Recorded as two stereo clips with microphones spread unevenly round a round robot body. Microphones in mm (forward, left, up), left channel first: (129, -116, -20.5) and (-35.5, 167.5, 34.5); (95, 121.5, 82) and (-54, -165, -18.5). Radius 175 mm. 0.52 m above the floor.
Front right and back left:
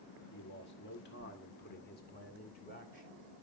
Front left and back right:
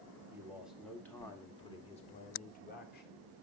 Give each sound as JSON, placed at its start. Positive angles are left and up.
{"t": 0.3, "sound": "a man speaking", "azimuth_deg": -60, "distance_m": 1.6}